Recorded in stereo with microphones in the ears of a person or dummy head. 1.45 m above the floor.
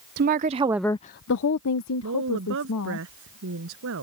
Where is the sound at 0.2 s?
45° right (ahead or behind); by 3.0 s 85° left.